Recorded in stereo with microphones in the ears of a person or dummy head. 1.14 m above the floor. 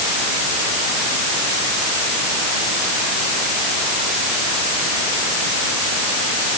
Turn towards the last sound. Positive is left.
No sound to turn to.